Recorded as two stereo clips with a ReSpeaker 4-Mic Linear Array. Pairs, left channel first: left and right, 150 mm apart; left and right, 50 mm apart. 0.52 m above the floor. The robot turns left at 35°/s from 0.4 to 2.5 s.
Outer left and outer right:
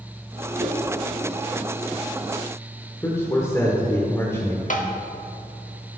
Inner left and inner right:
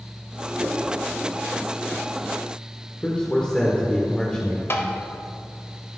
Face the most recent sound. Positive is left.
turn(degrees=55)  # may be behind; listen again after turning